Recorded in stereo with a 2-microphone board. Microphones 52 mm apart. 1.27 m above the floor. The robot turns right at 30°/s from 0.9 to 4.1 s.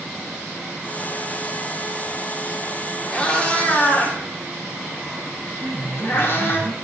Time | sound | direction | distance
3.1 | a cat meowing | 20° left (ahead or behind) | 2 m
5.6 | a piano | 55° right (ahead or behind) | 2.5 m